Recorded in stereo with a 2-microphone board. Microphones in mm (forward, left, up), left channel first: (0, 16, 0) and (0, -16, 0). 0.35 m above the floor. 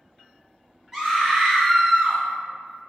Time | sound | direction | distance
0.9 | a scream | 15° right (ahead or behind) | 0.8 m